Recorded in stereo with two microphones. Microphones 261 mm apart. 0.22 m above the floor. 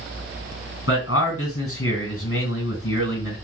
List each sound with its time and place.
0.9 s a man speaking: 55° left (ahead or behind), 2.5 m